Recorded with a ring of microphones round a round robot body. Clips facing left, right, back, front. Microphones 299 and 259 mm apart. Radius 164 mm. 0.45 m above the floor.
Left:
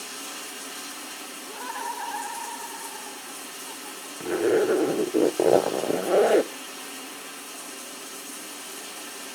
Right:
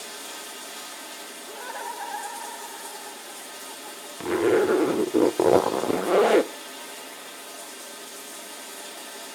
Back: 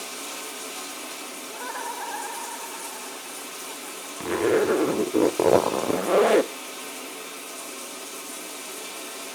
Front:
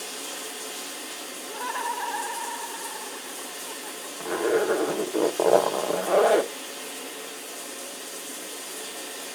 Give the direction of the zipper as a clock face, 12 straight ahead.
5 o'clock.